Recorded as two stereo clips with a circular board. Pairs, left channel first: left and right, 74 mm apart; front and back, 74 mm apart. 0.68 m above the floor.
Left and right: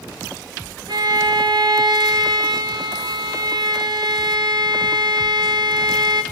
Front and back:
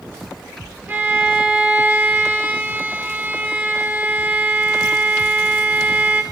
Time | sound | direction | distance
0.9 | a violin | 115° right | 0.7 m